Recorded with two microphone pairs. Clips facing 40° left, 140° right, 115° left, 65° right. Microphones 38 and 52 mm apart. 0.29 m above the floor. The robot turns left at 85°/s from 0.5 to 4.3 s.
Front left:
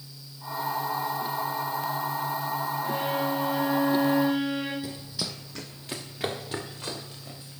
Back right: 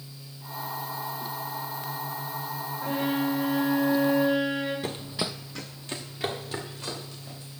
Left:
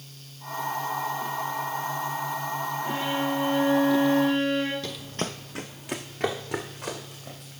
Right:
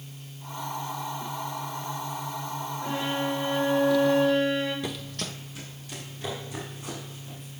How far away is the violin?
About 5.5 m.